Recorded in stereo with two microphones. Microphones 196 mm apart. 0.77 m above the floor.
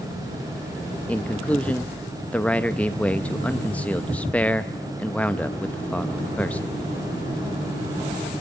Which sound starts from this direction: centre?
A man speaking, at 1.1 s.